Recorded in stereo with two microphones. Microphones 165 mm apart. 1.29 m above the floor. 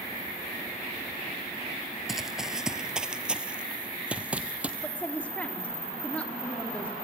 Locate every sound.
2.1 s running footsteps: centre (ahead or behind), 1.3 m; by 4.7 s 10° right (ahead or behind), 2 m
4.8 s a woman speaking: 10° left (ahead or behind), 4 m